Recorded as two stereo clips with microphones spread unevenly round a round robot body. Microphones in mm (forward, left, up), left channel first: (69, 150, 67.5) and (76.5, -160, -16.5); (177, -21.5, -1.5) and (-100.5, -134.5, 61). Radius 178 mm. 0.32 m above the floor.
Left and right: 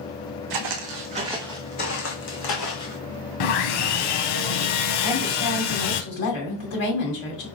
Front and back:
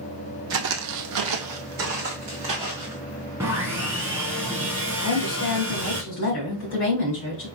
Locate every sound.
0.5 s footsteps: 125° right, 0.9 m; by 3.0 s 125° left, 1.8 m
3.4 s sawing: 120° left, 0.6 m
5.0 s a woman speaking: 65° left, 2.5 m